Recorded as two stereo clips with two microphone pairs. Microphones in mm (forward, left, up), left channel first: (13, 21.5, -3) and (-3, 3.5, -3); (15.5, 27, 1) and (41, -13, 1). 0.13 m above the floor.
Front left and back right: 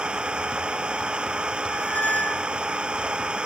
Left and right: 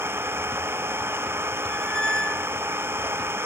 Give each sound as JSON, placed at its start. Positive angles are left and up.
{"t": 0.0, "sound": "an engine running", "azimuth_deg": -85}
{"t": 1.7, "sound": "a squeak", "azimuth_deg": 45}